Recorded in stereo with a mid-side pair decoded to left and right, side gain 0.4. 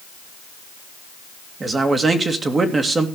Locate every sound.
1.6 s a man speaking: 35° right, 2.5 m